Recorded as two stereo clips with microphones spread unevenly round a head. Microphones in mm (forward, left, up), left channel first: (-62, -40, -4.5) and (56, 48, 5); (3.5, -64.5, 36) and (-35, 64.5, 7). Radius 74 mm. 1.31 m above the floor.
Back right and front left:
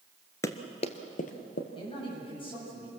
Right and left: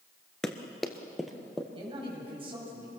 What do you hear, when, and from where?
0.4 s running footsteps: 105° right, 1.3 m; by 1.6 s 160° right, 2.5 m
1.7 s a man speaking: 160° left, 8 m